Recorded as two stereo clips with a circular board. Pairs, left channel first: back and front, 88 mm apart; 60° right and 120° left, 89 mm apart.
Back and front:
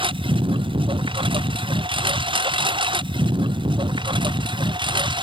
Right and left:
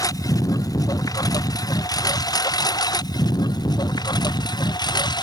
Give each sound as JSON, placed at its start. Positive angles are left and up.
{"t": 0.0, "sound": "a lawn mower", "azimuth_deg": -10}